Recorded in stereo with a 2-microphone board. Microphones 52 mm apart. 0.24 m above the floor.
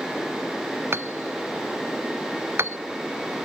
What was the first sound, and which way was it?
Hammering, 50° right (ahead or behind).